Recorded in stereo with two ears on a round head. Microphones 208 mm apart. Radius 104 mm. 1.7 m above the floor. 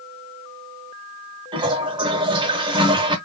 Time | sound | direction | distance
1.5 | a toilet flushing | 20° right (ahead or behind) | 0.8 m